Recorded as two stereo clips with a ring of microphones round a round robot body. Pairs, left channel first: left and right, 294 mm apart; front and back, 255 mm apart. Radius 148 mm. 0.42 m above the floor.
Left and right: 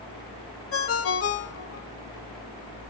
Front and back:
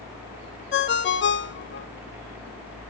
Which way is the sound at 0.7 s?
45° left.